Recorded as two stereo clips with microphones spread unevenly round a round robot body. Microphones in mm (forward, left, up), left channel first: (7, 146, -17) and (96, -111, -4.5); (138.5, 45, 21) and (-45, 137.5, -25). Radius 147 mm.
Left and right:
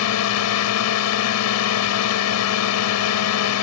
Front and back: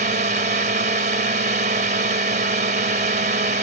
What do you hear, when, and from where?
0.0 s a drone: 115° left